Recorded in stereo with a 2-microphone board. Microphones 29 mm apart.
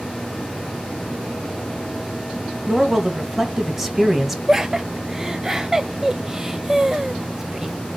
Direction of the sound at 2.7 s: 10° right (ahead or behind).